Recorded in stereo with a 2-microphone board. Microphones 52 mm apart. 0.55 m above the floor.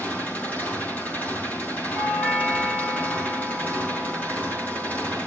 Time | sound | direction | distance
0.0 | an engine running | 35° left (ahead or behind) | 6.5 m
1.9 | a doorbell | 10° left (ahead or behind) | 4.5 m